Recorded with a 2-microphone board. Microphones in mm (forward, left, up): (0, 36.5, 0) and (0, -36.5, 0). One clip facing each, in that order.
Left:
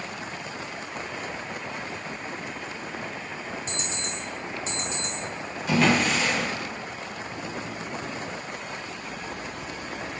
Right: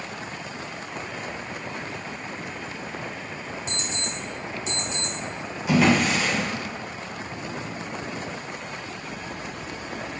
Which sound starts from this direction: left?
An alarm clock, at 3.7 s.